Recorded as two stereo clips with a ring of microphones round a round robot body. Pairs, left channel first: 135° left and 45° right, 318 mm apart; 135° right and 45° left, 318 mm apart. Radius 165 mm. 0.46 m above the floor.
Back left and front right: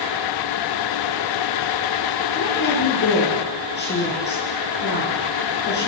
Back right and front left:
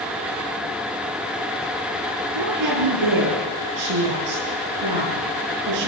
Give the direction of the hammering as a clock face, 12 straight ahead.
No hammering in this recording.